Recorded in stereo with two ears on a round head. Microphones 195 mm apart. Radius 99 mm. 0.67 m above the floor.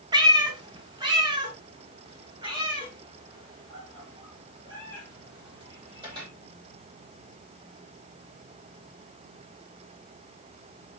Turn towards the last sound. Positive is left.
turn(degrees=-20)  # may be behind; listen again after turning